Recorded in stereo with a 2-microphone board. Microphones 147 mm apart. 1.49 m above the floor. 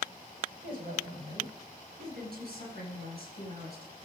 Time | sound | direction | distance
0.6 | a woman speaking | 80° right | 8.5 m